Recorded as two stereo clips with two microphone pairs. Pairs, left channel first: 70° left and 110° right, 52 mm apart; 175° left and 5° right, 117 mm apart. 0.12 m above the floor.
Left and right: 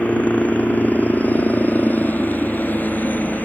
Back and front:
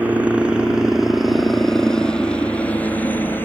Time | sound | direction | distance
0.0 | a helicopter | 55° left | ?